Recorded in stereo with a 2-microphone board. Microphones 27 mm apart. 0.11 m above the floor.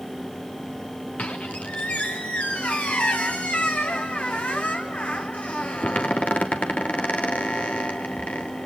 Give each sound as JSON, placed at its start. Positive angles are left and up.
{"t": 1.2, "sound": "a squeak", "side_deg": 50, "distance_m": 2.5}